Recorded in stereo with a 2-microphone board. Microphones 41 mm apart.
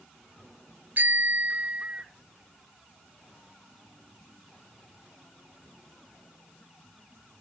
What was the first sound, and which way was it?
A bicycle bell, 50° right (ahead or behind).